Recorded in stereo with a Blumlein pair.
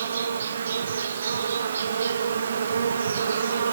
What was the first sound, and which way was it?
An insect, 65° right.